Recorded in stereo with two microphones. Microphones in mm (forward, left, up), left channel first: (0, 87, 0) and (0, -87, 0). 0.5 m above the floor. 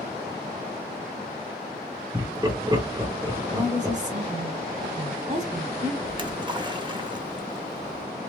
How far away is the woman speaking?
About 1.7 m.